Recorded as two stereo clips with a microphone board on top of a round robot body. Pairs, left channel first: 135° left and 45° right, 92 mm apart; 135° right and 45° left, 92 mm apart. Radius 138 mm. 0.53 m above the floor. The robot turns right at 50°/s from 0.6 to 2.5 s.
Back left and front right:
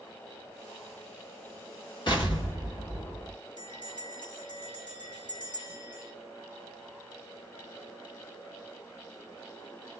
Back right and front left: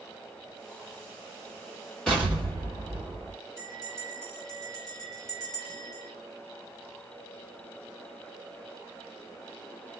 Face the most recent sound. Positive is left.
turn(degrees=140)